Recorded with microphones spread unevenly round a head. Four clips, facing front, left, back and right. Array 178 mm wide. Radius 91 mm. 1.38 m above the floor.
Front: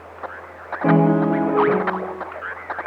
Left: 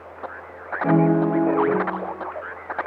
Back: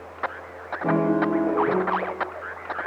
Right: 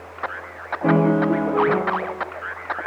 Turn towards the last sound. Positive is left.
turn(degrees=-30)